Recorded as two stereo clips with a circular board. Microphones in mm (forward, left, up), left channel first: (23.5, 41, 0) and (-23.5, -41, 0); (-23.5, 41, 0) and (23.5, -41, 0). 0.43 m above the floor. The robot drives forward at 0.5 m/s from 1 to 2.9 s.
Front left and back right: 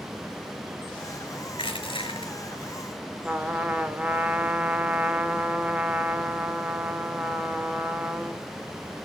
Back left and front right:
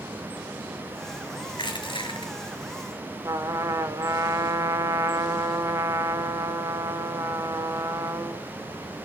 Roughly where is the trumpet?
Ahead right.